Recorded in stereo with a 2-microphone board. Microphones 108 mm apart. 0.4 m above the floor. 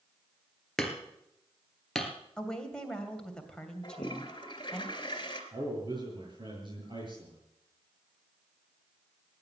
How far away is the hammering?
About 1.8 m.